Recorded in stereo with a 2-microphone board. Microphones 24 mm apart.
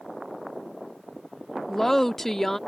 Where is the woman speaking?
20° left (ahead or behind).